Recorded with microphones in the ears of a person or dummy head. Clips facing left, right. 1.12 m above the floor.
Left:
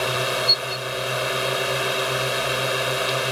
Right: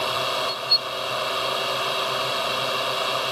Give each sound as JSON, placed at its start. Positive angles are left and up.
{"t": 0.0, "sound": "a drone", "side_deg": 30}